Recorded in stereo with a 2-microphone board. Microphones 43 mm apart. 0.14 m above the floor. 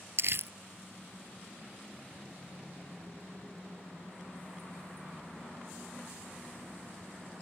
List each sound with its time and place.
0.2 s crumpling: 60° right (ahead or behind)